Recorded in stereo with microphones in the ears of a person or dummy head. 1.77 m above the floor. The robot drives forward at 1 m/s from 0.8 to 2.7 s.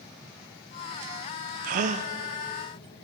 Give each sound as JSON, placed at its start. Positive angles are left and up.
{"t": 1.6, "sound": "a gasp", "side_deg": -45, "distance_m": 0.8}